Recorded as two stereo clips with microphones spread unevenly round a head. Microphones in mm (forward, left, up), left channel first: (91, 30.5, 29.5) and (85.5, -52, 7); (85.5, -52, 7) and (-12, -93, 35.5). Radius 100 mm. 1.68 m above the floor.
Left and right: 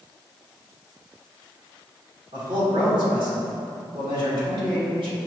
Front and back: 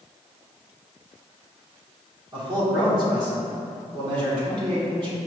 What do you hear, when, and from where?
2.3 s a man speaking: 140° right, 1.3 m